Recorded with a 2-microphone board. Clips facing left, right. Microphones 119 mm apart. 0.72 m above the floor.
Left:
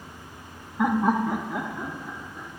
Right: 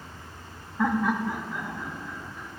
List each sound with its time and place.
0.8 s laughter: 10° left (ahead or behind), 0.9 m; by 2.5 s 50° left (ahead or behind), 2.5 m